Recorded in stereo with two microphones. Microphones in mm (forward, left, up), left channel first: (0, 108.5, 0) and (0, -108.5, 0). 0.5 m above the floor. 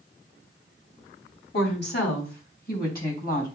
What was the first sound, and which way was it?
A woman speaking, 55° left (ahead or behind).